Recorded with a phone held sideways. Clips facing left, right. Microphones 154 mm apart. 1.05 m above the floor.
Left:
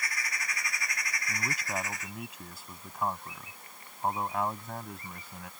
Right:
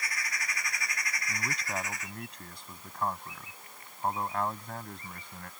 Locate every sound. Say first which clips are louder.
1.3 s a man speaking: left 1 dB; 5° left (ahead or behind)